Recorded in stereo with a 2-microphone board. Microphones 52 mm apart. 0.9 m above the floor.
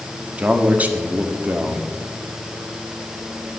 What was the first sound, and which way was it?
A man speaking, 30° right (ahead or behind).